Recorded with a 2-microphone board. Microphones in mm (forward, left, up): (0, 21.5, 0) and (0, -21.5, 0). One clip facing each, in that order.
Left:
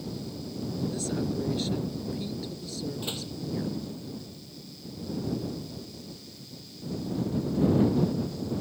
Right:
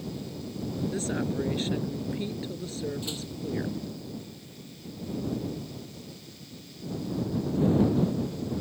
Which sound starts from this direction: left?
A door slam, at 3.0 s.